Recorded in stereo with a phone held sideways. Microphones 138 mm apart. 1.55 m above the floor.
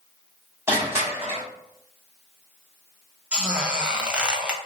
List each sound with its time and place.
0.7 s crushing: 20° right (ahead or behind), 1.3 m
3.3 s a squeak: 5° right (ahead or behind), 0.6 m